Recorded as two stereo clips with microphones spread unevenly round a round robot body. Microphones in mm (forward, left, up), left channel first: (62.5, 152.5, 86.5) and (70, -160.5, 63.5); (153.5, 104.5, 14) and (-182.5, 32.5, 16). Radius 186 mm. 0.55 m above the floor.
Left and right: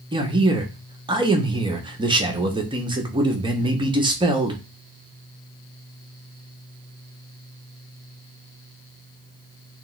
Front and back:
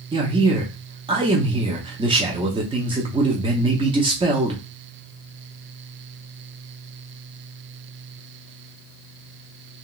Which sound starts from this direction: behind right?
A man speaking, at 0.1 s.